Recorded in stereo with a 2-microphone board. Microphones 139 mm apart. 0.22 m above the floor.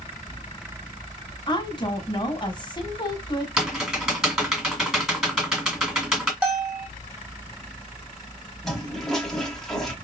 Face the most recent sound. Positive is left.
turn(degrees=5)  # may be behind; listen again after turning